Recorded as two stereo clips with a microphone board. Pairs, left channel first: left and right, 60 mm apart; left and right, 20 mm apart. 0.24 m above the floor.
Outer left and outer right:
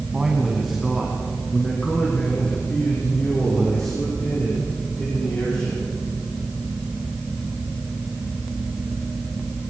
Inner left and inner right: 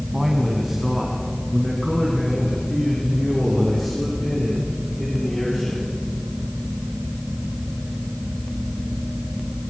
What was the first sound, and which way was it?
A man speaking, 15° right (ahead or behind).